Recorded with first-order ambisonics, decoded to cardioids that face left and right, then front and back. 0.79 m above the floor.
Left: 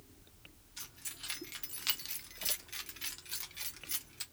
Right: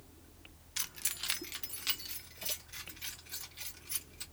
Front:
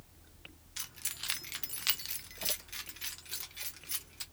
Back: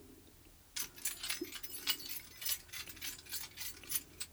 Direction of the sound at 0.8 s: 80° right.